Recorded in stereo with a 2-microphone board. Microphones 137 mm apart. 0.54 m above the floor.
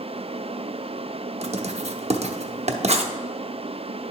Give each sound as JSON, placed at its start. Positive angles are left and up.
{"t": 1.4, "sound": "writing", "side_deg": -55, "distance_m": 0.6}